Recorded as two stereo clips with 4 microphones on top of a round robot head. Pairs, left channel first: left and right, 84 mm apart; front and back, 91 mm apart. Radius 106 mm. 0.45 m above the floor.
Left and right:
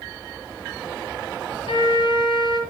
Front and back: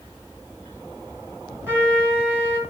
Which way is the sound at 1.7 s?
110° left.